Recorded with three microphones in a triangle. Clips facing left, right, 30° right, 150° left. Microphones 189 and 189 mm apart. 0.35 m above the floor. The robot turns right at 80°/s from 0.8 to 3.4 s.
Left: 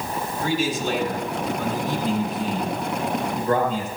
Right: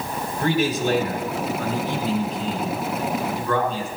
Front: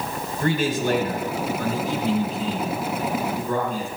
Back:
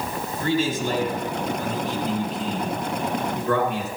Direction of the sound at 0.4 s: 55° right.